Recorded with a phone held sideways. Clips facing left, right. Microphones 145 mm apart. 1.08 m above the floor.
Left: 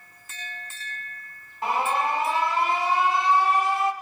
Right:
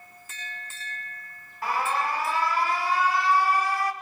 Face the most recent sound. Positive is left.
turn(degrees=20)  # may be behind; listen again after turning